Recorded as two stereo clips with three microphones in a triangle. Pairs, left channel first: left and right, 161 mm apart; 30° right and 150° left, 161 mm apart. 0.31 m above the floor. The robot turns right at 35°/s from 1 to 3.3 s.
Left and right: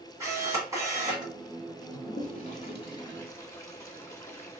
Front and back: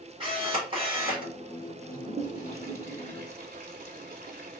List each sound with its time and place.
0.2 s a camera shutter: 160° right, 1.7 m; by 1.3 s 145° right, 1.7 m
1.9 s a toilet flushing: 115° left, 0.8 m; by 4.6 s 160° left, 0.8 m